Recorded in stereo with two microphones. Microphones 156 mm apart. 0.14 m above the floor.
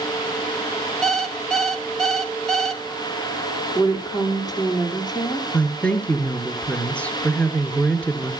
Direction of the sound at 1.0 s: Centre (ahead or behind).